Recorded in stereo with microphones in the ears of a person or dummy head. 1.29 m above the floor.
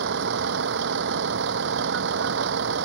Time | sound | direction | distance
0.0 | a vehicle | 70° right (ahead or behind) | ?